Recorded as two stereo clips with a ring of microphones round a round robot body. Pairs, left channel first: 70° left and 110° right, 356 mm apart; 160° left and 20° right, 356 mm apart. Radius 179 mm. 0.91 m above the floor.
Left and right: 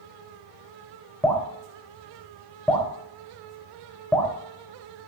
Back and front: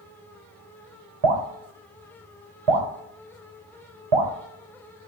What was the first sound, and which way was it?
Dripping, 20° right.